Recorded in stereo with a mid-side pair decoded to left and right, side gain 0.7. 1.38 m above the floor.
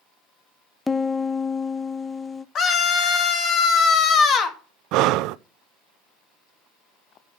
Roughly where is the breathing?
Ahead right.